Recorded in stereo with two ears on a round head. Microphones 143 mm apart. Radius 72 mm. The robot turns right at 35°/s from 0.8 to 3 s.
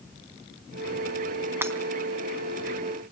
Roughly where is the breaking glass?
Centre.